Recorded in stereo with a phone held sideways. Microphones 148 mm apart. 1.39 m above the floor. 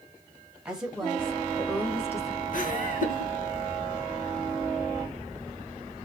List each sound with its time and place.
0.7 s a woman speaking: 5° right (ahead or behind), 2 m; by 2.4 s 20° left (ahead or behind), 3 m
2.5 s laughter: 65° left (ahead or behind), 1.7 m